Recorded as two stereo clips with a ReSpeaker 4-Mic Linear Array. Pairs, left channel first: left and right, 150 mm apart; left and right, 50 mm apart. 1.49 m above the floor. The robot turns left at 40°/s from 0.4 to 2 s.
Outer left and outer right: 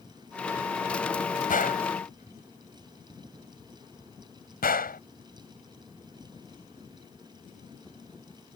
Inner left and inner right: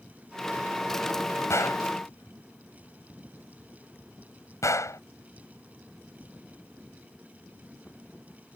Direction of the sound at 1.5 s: 65° left (ahead or behind).